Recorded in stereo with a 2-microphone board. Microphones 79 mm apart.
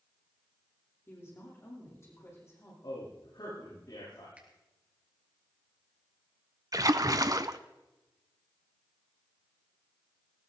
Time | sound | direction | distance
1.1 | a woman speaking | 35° left (ahead or behind) | 9.5 m
2.8 | a man speaking | 65° left (ahead or behind) | 9.5 m
4.4 | a finger snap | 15° right (ahead or behind) | 3.5 m
6.7 | a splash | 50° right (ahead or behind) | 0.7 m